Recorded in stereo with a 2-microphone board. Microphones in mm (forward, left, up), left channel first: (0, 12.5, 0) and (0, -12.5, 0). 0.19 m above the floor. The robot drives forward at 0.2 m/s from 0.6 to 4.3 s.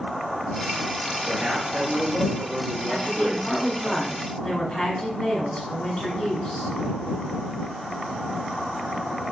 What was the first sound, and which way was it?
A man speaking, 15° right (ahead or behind).